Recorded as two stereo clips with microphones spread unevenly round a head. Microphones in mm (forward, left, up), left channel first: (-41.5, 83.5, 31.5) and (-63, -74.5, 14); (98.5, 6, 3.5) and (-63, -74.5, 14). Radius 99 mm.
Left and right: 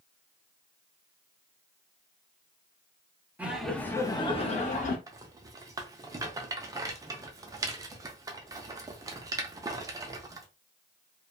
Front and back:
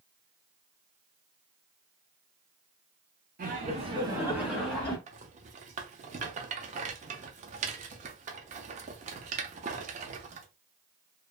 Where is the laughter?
165° right, 0.9 m; by 5.0 s 100° left, 1.2 m.